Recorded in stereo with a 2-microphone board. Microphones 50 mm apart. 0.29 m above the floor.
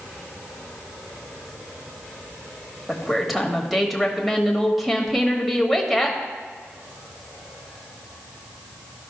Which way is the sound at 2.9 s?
Centre (ahead or behind).